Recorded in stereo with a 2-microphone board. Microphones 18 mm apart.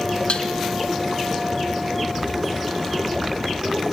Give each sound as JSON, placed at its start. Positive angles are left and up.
{"t": 0.3, "sound": "dishes clattering", "side_deg": 70, "distance_m": 2.5}